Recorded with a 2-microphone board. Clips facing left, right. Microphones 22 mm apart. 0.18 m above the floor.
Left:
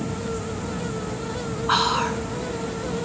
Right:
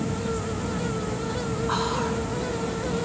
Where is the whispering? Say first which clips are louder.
Left 7 dB; 50° left (ahead or behind), 1.6 m.